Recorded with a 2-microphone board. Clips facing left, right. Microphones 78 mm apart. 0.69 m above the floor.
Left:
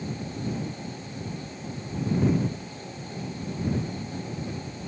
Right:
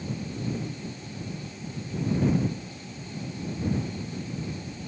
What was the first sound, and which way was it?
Only background noise.